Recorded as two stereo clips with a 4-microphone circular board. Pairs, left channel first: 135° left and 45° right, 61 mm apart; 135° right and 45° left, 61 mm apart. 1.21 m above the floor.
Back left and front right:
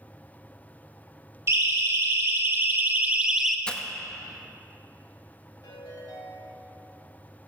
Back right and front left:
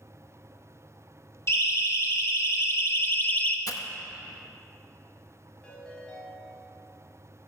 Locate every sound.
1.5 s a siren: 95° right, 2.5 m; by 3.6 s 140° right, 0.8 m
3.7 s breaking glass: 150° right, 0.8 m
5.6 s a ringtone: 145° left, 5 m